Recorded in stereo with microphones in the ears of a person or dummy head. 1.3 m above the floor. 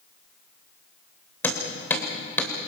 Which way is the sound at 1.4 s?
15° left (ahead or behind).